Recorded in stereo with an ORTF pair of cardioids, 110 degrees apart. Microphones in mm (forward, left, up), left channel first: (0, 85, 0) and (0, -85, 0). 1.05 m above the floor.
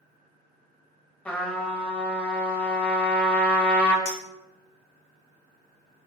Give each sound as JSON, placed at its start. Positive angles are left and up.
{"t": 1.2, "sound": "a trumpet", "azimuth_deg": 10, "distance_m": 1.1}
{"t": 4.0, "sound": "a clink", "azimuth_deg": 70, "distance_m": 1.4}